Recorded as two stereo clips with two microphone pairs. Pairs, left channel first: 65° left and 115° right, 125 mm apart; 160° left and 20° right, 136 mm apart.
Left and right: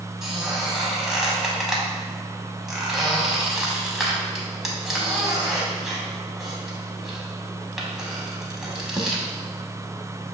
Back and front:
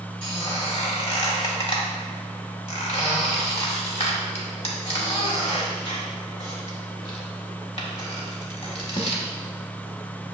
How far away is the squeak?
About 0.8 m.